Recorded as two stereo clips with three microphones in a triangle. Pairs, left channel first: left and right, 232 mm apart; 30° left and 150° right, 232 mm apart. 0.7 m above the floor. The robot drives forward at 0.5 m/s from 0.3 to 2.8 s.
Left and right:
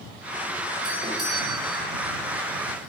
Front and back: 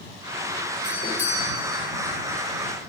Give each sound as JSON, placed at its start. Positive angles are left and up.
{"t": 0.8, "sound": "a doorbell", "azimuth_deg": -20, "distance_m": 3.5}